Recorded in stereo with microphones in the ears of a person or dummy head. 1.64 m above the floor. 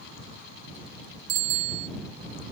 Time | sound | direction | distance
1.3 | a bicycle bell | 55° right (ahead or behind) | ?